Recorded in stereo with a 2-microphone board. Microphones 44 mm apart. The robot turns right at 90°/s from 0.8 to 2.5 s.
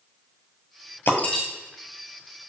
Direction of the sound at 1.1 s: 45° left (ahead or behind).